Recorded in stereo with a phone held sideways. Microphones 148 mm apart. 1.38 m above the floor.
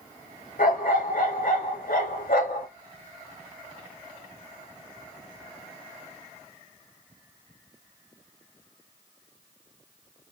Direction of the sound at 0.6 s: 65° left (ahead or behind).